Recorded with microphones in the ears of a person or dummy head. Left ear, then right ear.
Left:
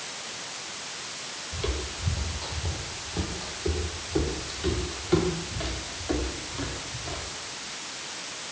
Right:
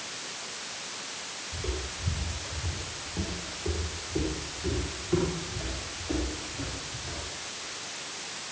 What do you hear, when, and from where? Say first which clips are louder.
1.5 s footsteps: left 4 dB; 55° left (ahead or behind), 3 m; by 7.2 s 40° left (ahead or behind), 6 m